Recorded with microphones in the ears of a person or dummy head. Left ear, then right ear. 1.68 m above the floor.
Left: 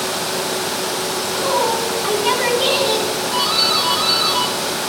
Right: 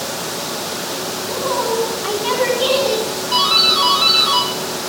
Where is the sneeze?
I don't hear a sneeze.